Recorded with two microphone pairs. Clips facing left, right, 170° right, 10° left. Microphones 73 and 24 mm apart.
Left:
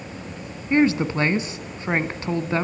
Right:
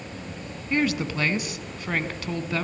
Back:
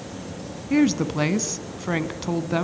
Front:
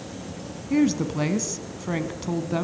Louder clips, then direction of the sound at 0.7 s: Left 6 dB, back 2 dB; 130° left.